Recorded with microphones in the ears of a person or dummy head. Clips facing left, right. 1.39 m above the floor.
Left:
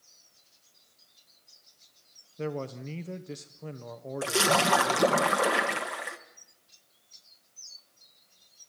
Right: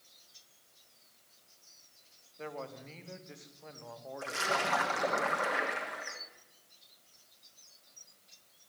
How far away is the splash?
About 1.3 m.